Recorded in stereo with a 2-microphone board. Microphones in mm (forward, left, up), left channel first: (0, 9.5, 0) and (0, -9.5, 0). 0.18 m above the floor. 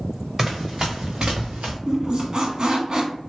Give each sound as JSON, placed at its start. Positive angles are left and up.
{"t": 0.4, "sound": "running footsteps", "side_deg": -20, "distance_m": 1.4}
{"t": 1.9, "sound": "a squeak", "side_deg": -40, "distance_m": 0.6}